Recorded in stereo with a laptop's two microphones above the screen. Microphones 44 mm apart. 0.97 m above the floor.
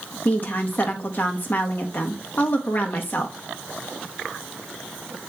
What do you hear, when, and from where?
0.2 s a woman speaking: 45° left (ahead or behind), 0.9 m